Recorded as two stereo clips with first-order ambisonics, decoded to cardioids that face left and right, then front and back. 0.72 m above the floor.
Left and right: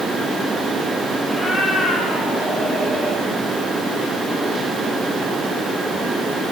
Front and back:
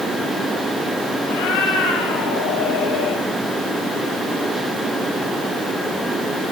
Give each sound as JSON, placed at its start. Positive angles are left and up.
{"t": 1.3, "sound": "a cat meowing", "azimuth_deg": 10, "distance_m": 5.0}